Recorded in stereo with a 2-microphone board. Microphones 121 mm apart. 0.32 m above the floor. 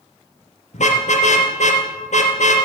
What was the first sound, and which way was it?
A car horn, 75° left (ahead or behind).